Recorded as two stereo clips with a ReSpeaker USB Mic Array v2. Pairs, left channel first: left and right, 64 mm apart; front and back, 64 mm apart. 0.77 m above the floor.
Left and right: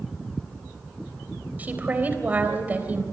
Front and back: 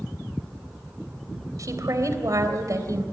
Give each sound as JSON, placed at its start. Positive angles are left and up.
{"t": 1.6, "sound": "a woman speaking", "azimuth_deg": -155, "distance_m": 3.0}